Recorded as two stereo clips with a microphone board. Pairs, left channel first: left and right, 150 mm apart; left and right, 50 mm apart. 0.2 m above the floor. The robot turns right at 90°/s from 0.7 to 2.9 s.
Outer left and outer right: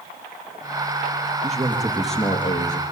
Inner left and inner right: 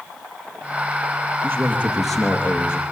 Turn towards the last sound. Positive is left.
turn(degrees=75)